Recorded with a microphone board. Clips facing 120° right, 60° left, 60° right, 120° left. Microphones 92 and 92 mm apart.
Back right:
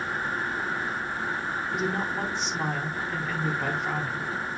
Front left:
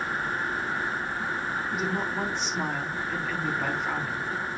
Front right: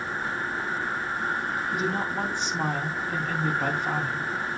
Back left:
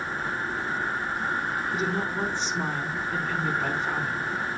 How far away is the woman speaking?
About 3.5 m.